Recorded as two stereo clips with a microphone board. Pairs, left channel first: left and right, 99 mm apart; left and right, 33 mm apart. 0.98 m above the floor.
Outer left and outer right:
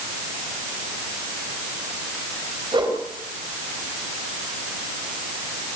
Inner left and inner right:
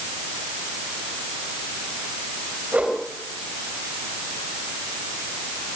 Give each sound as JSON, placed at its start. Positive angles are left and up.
{"t": 2.7, "sound": "a whoosh", "side_deg": -55, "distance_m": 4.0}